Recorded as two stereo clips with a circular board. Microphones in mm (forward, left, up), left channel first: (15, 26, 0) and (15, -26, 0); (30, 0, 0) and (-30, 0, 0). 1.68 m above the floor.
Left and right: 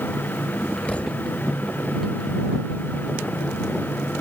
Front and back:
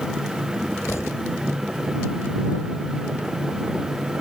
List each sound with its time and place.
0.9 s a thud: 30° left